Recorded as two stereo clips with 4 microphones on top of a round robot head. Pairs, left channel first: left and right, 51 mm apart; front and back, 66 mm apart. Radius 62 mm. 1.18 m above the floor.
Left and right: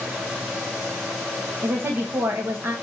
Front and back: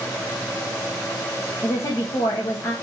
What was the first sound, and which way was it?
A woman speaking, 40° right.